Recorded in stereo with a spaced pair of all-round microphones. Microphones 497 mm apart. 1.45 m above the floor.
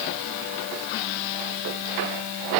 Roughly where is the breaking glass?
I don't hear breaking glass.